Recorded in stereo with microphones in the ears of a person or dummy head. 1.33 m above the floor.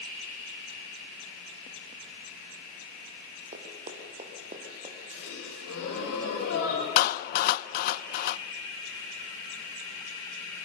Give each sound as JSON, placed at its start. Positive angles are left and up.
{"t": 3.5, "sound": "running footsteps", "side_deg": -40, "distance_m": 3.0}
{"t": 5.1, "sound": "a gasp", "side_deg": 90, "distance_m": 5.5}
{"t": 7.0, "sound": "a clap", "side_deg": 50, "distance_m": 0.7}